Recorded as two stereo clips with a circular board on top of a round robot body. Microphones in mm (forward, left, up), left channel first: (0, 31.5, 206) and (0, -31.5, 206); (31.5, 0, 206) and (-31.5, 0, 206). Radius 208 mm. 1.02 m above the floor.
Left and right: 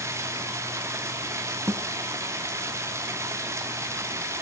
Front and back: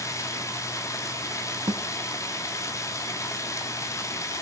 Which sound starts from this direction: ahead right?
Running water, at 0.0 s.